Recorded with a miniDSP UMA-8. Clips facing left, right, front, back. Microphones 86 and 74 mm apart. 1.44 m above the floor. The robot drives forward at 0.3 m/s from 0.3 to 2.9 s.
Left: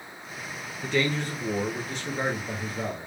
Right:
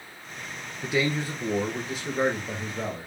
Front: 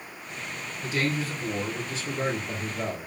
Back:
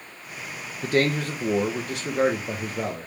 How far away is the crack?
I don't hear a crack.